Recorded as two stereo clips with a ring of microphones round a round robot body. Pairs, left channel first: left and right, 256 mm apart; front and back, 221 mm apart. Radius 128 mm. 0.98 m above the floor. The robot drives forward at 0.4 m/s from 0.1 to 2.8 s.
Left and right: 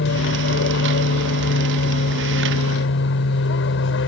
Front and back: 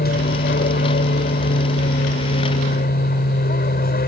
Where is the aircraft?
45° left.